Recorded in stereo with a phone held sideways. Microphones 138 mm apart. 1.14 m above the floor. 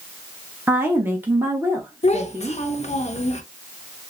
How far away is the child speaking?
About 0.6 m.